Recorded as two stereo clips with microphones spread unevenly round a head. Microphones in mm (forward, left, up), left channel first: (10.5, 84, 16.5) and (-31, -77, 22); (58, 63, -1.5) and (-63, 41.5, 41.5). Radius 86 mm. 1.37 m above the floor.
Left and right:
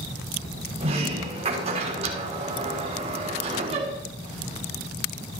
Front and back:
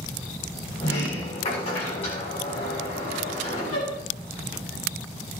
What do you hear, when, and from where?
0.8 s a sliding door: 50° right, 6.5 m